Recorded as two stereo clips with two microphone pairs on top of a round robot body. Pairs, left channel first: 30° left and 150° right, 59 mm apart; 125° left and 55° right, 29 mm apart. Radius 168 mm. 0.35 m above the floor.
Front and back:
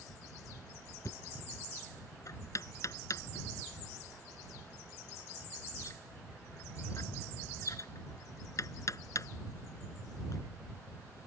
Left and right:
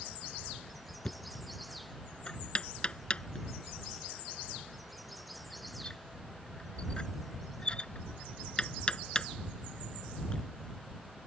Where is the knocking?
65° left.